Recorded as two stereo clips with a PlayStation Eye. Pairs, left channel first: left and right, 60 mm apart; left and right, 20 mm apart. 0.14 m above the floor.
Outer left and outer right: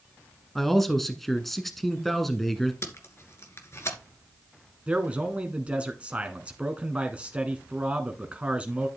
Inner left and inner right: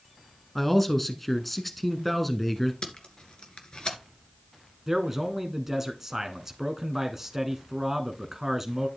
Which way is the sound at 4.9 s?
20° right (ahead or behind).